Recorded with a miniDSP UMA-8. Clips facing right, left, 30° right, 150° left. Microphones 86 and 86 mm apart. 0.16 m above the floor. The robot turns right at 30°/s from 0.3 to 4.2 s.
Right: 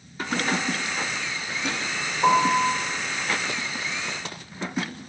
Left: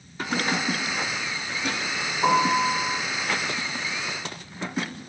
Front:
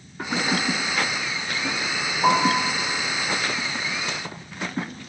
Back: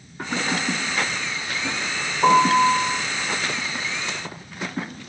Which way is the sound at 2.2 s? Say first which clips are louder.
Right 1 dB, back 5 dB; 170° left.